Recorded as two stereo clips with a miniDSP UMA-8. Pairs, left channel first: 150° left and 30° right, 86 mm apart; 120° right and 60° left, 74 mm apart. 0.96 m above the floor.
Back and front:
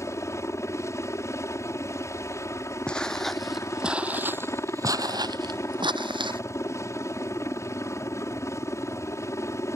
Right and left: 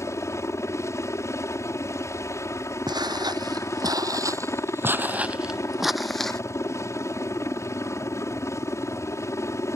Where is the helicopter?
160° right.